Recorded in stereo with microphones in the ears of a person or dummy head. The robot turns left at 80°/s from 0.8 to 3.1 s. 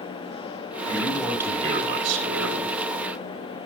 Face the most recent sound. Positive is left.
turn(degrees=-150)